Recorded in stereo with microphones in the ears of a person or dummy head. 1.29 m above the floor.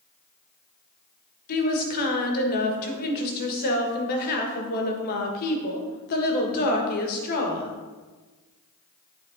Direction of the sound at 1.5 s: 50° left (ahead or behind).